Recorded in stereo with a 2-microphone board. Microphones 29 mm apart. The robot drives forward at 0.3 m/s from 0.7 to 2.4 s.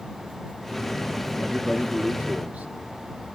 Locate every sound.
1.4 s a man speaking: 55° right (ahead or behind), 3.5 m; by 2.8 s 50° right (ahead or behind), 4 m